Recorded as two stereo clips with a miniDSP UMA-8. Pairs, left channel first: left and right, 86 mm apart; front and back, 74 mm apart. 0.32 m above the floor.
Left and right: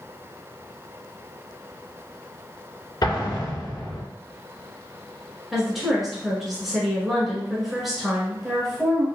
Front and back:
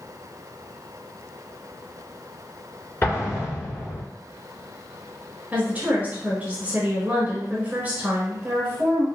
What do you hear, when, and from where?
3.0 s an explosion: 55° left, 2 m
5.5 s a woman speaking: 175° right, 1.5 m